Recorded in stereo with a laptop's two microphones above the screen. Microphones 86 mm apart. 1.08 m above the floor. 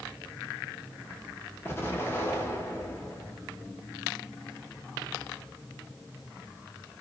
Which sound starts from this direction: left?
An explosion, at 1.6 s.